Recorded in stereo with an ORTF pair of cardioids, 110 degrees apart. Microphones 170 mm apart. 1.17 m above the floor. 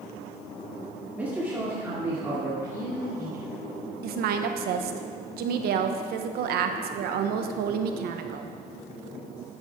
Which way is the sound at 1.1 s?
10° right.